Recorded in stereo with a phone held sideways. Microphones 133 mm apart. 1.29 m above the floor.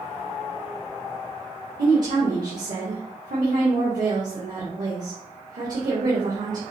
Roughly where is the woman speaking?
Right.